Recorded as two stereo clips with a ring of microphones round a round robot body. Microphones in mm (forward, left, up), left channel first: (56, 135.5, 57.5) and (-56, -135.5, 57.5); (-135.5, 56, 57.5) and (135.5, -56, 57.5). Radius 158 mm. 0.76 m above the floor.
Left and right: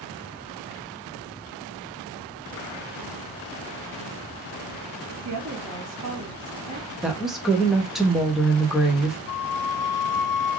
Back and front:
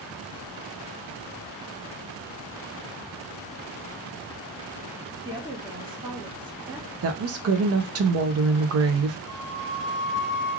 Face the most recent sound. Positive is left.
turn(degrees=110)